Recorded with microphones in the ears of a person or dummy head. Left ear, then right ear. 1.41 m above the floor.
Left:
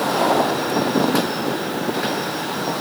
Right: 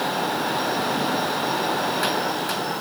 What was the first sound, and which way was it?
Only background noise.